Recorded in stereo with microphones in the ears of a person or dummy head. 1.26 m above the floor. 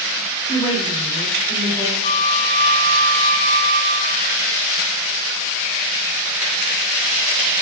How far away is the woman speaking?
About 2.5 m.